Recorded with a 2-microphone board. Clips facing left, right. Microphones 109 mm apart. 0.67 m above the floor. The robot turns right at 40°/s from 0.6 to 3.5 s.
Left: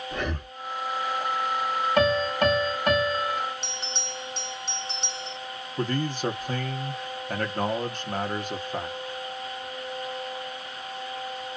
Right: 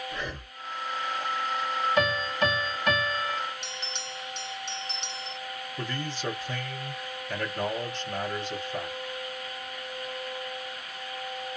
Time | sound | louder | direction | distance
0.1 | breathing | left 5 dB | 60° left (ahead or behind) | 1.0 m
2.0 | a piano | left 7 dB | 100° left | 1.5 m
3.6 | a bell | left 3 dB | 40° left (ahead or behind) | 1.9 m
5.8 | a man speaking | left 8 dB | 50° left (ahead or behind) | 1.0 m